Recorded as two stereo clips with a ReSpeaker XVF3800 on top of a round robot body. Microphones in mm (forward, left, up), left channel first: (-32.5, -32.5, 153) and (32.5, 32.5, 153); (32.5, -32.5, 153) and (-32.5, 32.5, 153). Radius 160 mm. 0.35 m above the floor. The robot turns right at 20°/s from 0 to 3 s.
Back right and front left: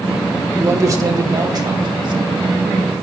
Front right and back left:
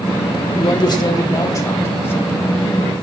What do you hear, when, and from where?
0.6 s a man speaking: 15° right, 2.5 m; by 2.6 s 25° left, 2.5 m